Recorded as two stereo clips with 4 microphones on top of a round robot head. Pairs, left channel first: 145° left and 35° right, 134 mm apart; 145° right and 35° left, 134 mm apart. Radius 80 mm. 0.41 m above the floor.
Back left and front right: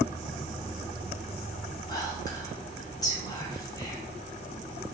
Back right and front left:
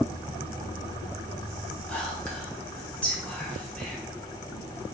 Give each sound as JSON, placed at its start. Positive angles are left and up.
{"t": 1.9, "sound": "whispering", "azimuth_deg": 145, "distance_m": 1.0}